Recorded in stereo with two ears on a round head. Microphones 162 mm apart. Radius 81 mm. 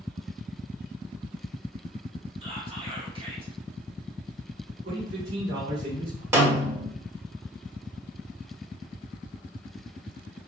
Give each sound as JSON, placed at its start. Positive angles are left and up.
{"t": 2.4, "sound": "whispering", "side_deg": -30, "distance_m": 1.2}
{"t": 4.8, "sound": "a man speaking", "side_deg": -55, "distance_m": 2.0}
{"t": 6.3, "sound": "a snare drum", "side_deg": -15, "distance_m": 1.2}